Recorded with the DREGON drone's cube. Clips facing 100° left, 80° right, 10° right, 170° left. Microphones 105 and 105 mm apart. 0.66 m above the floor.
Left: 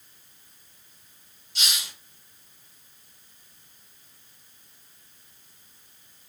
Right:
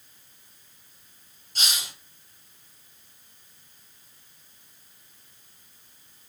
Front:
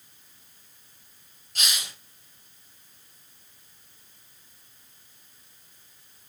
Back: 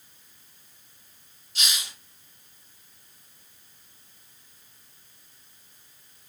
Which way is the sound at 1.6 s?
45° right.